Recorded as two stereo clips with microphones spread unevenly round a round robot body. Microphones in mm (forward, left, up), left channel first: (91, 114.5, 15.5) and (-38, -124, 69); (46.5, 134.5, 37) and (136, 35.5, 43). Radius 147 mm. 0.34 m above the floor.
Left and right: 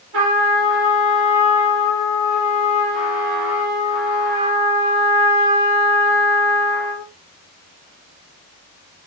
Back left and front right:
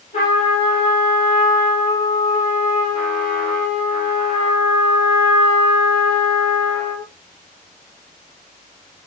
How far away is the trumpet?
About 8.5 m.